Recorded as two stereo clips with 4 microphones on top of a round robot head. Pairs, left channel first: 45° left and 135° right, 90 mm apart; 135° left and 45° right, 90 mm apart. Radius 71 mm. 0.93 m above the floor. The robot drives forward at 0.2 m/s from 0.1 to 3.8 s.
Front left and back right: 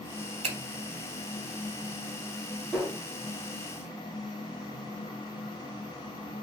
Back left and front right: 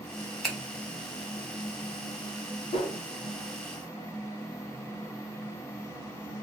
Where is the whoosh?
135° left, 0.9 m.